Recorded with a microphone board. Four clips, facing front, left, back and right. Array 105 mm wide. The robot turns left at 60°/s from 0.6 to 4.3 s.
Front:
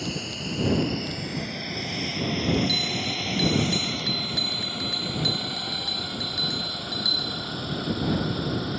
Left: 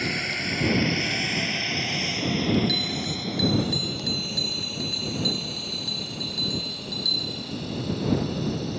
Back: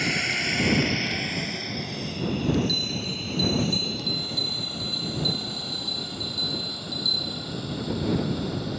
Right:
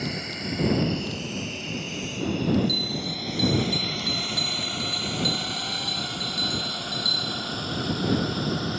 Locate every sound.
0.0 s a drone: 155° left; by 8.8 s 60° right
2.7 s a bell: 90° left; by 7.5 s 5° right